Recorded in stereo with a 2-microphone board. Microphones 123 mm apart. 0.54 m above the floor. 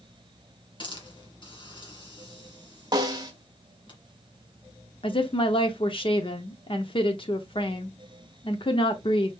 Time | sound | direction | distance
0.8 | a hiss | 40° left (ahead or behind) | 2 m
2.9 | a snare drum | 35° right (ahead or behind) | 1.1 m
5.0 | a woman speaking | 45° left (ahead or behind) | 0.8 m